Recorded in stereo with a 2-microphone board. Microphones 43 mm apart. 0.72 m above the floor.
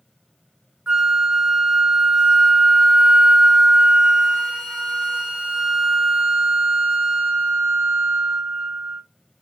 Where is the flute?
20° right (ahead or behind), 0.9 m.